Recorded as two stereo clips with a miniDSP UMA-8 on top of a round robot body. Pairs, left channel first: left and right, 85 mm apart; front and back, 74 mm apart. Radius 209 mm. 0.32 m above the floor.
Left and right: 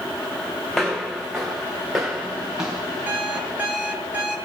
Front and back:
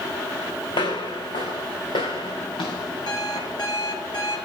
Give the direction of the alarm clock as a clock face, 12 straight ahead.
1 o'clock.